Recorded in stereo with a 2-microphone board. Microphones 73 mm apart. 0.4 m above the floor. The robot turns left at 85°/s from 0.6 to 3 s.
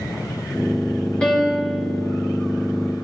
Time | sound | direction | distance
1.2 | a piano | 20° left | 1.8 m